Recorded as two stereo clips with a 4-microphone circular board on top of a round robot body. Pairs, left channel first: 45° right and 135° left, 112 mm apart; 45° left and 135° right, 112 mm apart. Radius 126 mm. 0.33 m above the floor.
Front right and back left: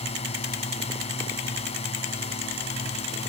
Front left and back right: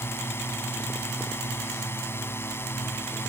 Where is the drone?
25° right.